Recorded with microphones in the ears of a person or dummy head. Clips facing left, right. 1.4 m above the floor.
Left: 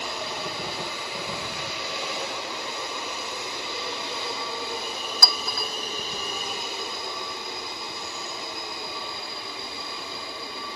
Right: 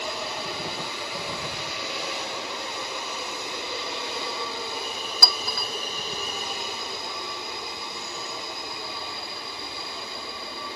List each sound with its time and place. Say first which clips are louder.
5.2 s a clink: even; centre (ahead or behind), 0.7 m